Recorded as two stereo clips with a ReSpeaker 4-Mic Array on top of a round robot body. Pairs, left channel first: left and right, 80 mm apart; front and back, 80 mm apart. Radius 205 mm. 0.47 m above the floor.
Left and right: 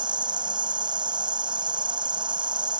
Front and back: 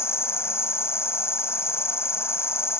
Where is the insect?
60° right.